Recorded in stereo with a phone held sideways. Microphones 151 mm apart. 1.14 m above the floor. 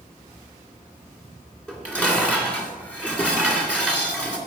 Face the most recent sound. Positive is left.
turn(degrees=5)  # may be behind; listen again after turning